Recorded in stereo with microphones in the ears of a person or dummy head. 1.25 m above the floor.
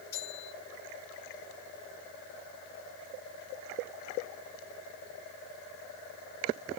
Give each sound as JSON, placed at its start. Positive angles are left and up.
{"t": 0.1, "sound": "a bell", "side_deg": 15, "distance_m": 8.0}